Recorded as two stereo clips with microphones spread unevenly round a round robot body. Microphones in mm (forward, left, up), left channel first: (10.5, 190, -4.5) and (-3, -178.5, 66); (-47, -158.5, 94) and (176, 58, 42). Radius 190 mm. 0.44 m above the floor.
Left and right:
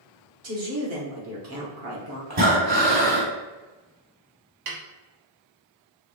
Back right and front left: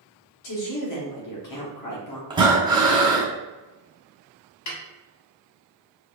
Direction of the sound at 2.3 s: 20° right.